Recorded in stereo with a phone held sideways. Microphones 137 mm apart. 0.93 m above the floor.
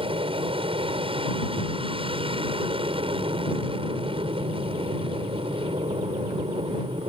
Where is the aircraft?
40° right (ahead or behind).